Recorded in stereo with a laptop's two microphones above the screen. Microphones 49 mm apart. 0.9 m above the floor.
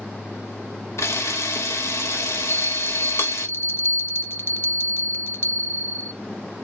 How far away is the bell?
About 0.6 m.